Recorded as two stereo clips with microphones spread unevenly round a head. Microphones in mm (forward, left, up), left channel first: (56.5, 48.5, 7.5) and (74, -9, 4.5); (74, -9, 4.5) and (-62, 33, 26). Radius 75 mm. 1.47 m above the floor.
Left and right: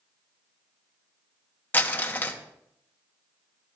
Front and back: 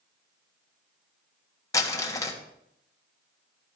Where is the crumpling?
50° left, 1.3 m.